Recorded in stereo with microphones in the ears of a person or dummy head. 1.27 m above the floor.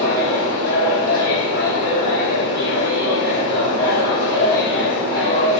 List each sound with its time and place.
0.0 s a machine running: 55° right (ahead or behind), 1.2 m